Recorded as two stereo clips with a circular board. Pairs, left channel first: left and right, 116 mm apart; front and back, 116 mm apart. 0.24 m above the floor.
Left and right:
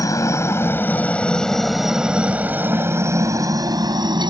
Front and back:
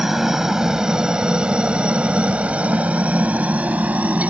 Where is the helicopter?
95° left; by 4.3 s 110° right.